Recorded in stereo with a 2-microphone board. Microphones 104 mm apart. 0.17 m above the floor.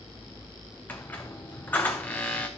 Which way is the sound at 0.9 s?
15° left (ahead or behind).